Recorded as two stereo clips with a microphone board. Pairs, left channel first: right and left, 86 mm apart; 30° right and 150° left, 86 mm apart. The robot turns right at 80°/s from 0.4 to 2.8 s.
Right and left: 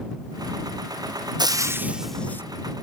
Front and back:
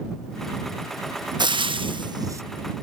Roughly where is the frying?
Behind left.